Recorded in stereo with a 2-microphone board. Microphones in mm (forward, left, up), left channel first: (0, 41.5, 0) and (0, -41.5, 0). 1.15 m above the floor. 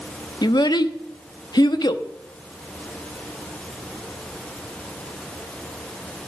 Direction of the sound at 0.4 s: 60° left (ahead or behind).